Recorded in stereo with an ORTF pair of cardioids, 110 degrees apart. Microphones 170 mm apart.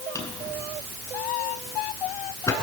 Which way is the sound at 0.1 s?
20° left.